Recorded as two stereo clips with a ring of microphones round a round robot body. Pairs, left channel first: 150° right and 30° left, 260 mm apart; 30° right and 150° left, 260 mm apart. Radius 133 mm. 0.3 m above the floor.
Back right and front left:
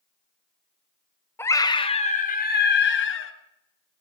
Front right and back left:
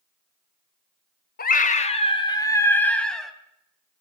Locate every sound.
1.4 s a scream: 70° right, 2 m; by 3.3 s 120° right, 3 m